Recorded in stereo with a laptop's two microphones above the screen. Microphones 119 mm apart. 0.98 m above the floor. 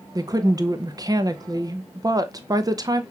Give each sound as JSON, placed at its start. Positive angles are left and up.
{"t": 0.1, "sound": "a woman speaking", "side_deg": -30, "distance_m": 0.5}